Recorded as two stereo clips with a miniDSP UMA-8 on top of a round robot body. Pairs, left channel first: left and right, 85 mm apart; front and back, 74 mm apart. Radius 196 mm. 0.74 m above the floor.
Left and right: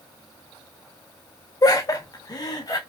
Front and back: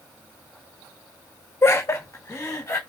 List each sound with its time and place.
1.6 s laughter: 50° left, 0.7 m; by 2.8 s 45° left, 1.3 m